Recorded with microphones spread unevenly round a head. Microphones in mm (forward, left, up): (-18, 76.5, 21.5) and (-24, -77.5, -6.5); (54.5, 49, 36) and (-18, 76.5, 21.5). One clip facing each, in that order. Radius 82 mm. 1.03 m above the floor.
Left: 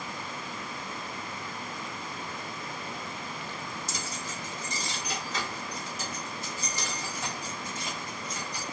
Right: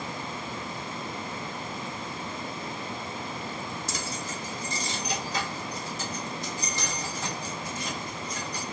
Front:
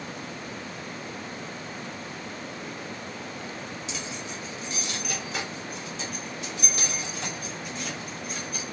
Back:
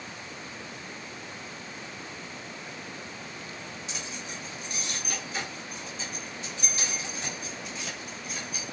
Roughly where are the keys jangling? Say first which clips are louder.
Right 3 dB, front 3 dB; ahead right.